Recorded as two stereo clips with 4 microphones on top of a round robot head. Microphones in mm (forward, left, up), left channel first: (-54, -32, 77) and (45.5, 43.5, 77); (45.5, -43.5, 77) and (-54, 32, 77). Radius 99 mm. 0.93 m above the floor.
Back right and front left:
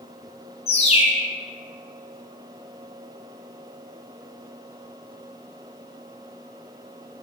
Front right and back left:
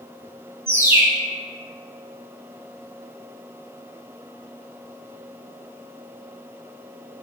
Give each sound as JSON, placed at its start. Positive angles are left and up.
{"t": 0.7, "sound": "a bird", "azimuth_deg": -150, "distance_m": 0.7}